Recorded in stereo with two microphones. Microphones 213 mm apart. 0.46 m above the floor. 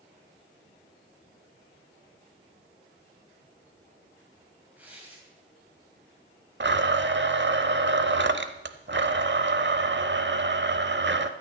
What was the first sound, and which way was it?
Tearing paper, 5° right (ahead or behind).